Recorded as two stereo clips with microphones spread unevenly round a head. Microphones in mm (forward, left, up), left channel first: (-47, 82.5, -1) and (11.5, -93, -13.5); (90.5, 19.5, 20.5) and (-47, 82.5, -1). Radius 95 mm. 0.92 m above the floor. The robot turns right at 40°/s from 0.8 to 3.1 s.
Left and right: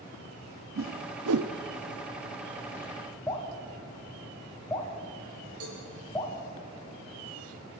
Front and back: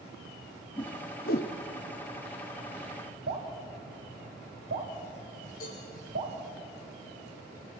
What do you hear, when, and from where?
0.8 s a whoosh: 90° right, 0.8 m; by 1.5 s 60° right, 0.8 m
3.3 s dripping: 175° right, 4 m
5.6 s a cowbell: 75° right, 7.5 m